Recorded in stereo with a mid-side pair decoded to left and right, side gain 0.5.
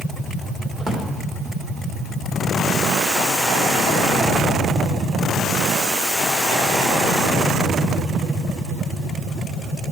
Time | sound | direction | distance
0.8 | a drawer | 20° right | 2.5 m